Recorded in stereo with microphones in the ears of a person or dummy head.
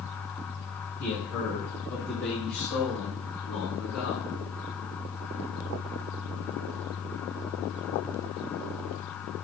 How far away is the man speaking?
About 4 m.